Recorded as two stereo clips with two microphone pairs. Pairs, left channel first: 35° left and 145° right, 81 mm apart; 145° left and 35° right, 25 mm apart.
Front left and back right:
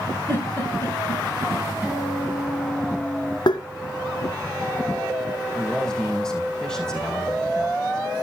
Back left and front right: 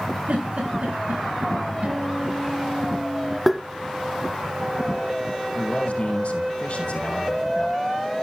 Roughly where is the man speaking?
Behind left.